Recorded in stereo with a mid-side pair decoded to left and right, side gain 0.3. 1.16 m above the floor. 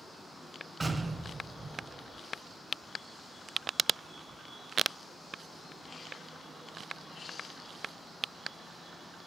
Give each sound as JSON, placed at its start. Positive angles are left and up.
{"t": 0.8, "sound": "an explosion", "azimuth_deg": -35, "distance_m": 2.0}